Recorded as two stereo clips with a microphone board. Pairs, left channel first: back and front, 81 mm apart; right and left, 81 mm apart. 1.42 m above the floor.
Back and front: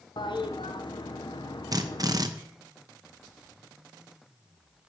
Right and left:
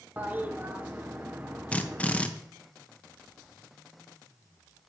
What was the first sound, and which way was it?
A toilet flushing, 160° left.